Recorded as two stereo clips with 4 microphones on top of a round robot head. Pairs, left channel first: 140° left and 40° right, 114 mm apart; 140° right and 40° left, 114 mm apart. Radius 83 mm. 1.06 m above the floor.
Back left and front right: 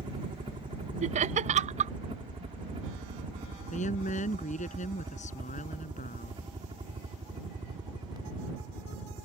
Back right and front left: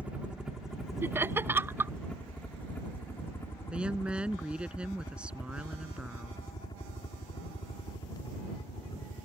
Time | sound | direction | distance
0.0 | a helicopter | 35° right | ?
1.0 | laughter | 35° right | ?
3.7 | a woman speaking | 120° left | ?